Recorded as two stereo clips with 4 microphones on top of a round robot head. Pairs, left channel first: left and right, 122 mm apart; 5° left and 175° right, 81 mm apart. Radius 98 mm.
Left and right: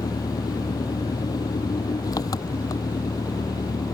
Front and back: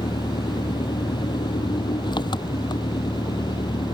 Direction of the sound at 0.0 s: 30° left.